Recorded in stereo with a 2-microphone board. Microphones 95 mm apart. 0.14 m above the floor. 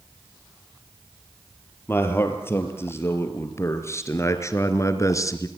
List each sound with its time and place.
1.9 s a man speaking: 25° left (ahead or behind), 4.5 m; by 5.5 s 35° left (ahead or behind), 2 m